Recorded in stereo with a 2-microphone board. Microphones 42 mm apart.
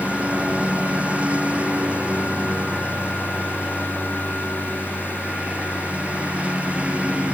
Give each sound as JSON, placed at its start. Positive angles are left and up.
{"t": 0.0, "sound": "a lawn mower", "side_deg": -30}